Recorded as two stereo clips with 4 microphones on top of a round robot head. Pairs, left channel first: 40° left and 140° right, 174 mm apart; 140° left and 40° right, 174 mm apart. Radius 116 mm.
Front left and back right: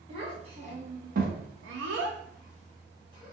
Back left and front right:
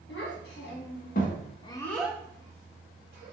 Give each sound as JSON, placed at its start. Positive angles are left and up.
{"t": 0.1, "sound": "a child speaking", "azimuth_deg": 160, "distance_m": 1.3}